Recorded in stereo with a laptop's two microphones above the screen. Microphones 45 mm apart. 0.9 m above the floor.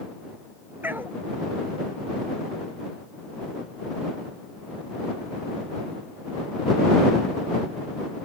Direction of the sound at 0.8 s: 50° right (ahead or behind).